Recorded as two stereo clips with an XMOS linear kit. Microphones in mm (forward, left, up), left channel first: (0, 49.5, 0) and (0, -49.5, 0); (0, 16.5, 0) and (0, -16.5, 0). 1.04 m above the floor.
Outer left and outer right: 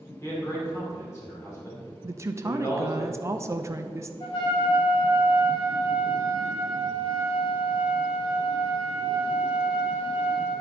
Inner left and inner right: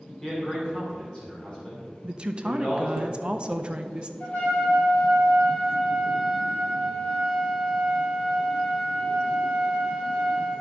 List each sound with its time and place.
0.2 s a man speaking: 25° left (ahead or behind), 2.5 m
2.0 s a woman speaking: 30° right (ahead or behind), 0.6 m
4.2 s a trumpet: 50° left (ahead or behind), 3 m